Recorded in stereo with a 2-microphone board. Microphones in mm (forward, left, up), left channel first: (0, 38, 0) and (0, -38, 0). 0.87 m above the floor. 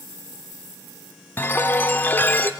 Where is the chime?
25° left (ahead or behind), 0.8 m.